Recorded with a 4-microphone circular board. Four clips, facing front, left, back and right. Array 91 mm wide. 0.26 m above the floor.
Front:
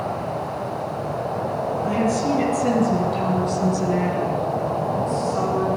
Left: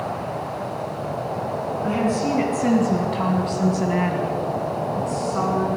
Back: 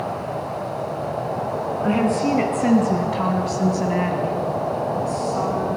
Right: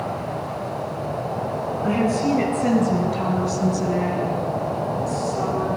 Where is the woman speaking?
175° right, 3 m; by 5.7 s 85° left, 3 m.